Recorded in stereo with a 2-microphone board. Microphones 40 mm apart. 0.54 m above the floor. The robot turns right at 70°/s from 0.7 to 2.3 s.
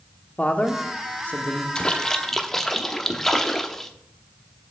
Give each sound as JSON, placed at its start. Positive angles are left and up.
{"t": 0.4, "sound": "a man speaking", "azimuth_deg": 65, "distance_m": 0.9}
{"t": 1.8, "sound": "a splash", "side_deg": 20, "distance_m": 0.9}